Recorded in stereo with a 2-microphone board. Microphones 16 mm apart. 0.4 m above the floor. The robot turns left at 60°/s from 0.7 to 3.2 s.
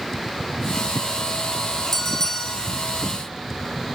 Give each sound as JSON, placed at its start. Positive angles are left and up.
{"t": 1.9, "sound": "a bell", "azimuth_deg": 160, "distance_m": 4.0}